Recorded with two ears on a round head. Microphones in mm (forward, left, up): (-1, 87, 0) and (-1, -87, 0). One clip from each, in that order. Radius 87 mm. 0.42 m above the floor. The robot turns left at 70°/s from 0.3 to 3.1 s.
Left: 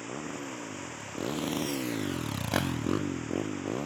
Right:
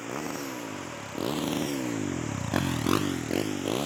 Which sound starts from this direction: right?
A motorcycle, at 0.0 s.